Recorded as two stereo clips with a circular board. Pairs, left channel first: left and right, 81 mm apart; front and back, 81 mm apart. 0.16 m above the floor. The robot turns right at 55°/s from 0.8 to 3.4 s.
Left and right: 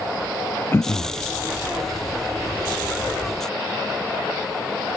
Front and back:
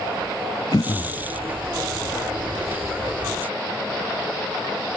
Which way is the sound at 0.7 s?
30° left.